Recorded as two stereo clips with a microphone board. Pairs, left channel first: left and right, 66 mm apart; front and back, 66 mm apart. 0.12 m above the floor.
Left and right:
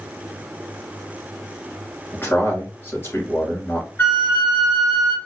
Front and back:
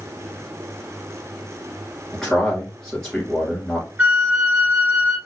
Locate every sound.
2.1 s a man speaking: 80° left, 1.7 m
4.0 s a flute: 125° left, 0.9 m